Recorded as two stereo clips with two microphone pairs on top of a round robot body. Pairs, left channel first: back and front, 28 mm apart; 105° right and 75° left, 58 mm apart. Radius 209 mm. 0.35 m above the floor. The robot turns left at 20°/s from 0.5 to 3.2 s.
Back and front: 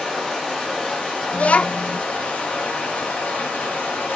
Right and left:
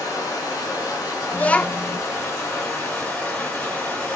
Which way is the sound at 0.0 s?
110° right.